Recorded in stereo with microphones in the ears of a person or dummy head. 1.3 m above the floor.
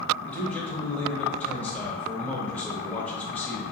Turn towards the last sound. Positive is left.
turn(degrees=10)  # may be behind; listen again after turning